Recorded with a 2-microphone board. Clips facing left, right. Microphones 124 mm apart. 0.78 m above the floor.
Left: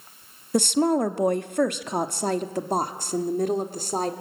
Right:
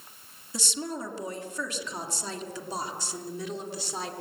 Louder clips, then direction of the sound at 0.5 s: Left 14 dB; 55° left (ahead or behind).